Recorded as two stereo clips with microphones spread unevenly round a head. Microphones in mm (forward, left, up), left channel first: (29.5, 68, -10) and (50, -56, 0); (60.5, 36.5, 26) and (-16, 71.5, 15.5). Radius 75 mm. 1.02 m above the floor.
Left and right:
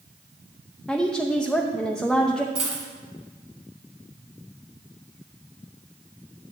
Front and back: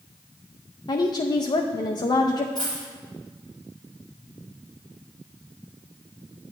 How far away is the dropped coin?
About 1.5 m.